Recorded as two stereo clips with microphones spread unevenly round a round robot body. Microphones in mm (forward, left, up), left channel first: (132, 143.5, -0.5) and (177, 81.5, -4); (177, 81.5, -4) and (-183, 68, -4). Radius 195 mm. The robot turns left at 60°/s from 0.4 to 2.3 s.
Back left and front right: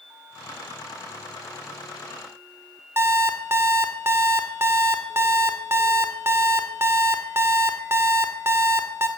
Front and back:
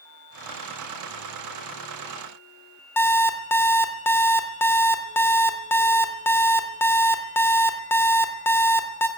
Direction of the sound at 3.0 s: 75° right.